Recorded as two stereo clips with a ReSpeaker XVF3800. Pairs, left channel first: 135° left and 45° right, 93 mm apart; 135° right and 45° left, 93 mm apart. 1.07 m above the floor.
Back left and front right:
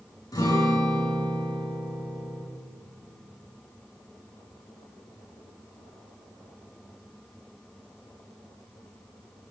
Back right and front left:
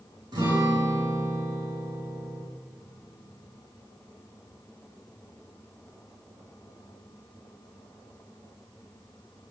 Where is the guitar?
85° left, 9.5 m.